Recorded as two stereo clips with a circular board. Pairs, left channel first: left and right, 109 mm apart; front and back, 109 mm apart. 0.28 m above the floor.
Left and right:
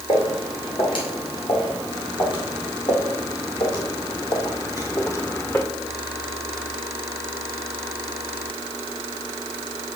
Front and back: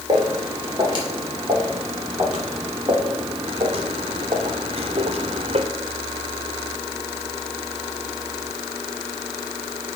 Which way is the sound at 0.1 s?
130° left.